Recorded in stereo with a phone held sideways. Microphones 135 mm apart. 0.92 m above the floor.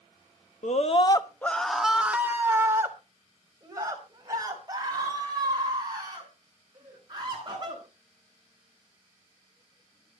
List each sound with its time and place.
0.6 s a scream: 65° left (ahead or behind), 1.2 m; by 7.8 s 35° right (ahead or behind), 10.5 m